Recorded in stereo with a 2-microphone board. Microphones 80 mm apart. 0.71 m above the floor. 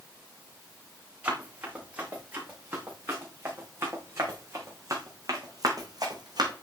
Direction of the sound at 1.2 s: 20° right (ahead or behind).